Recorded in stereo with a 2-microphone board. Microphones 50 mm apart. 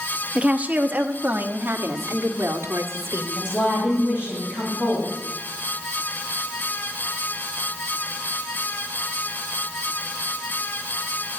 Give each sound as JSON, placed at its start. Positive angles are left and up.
{"t": 0.3, "sound": "a woman speaking", "side_deg": -20, "distance_m": 0.9}
{"t": 3.4, "sound": "a woman speaking", "side_deg": 45, "distance_m": 5.0}